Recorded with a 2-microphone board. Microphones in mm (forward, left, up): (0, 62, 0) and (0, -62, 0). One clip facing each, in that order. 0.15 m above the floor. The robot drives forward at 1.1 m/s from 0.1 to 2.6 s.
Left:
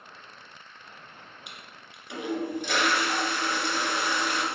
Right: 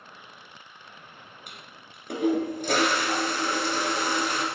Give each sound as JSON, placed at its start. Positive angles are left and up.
{"t": 1.5, "sound": "a toilet flushing", "side_deg": -50, "distance_m": 2.0}